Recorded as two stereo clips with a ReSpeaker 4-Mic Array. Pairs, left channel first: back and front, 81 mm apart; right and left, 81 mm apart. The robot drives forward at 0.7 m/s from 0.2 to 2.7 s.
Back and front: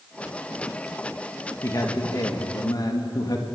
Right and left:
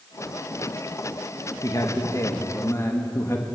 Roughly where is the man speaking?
Behind right.